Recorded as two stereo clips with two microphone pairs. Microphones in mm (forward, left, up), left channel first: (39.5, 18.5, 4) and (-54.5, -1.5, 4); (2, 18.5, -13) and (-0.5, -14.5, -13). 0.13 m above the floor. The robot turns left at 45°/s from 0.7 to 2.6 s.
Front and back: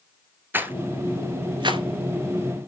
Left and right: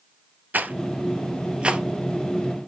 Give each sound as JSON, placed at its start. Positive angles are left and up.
{"t": 0.5, "sound": "a rattle", "azimuth_deg": -105, "distance_m": 0.8}